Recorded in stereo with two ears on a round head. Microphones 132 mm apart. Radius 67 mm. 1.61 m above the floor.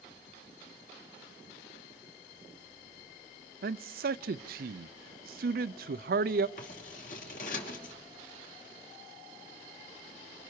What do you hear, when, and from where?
3.6 s a man speaking: 70° right (ahead or behind), 0.7 m
6.6 s scissors: 55° left (ahead or behind), 3 m